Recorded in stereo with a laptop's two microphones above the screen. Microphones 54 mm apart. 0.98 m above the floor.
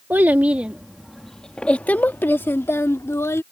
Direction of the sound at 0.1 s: 40° right (ahead or behind).